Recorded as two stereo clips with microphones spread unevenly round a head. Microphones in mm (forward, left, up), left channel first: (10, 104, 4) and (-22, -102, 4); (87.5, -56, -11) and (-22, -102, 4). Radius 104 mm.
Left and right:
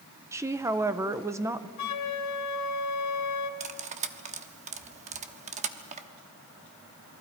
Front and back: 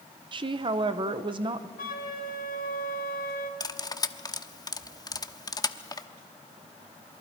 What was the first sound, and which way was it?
A woman speaking, 165° right.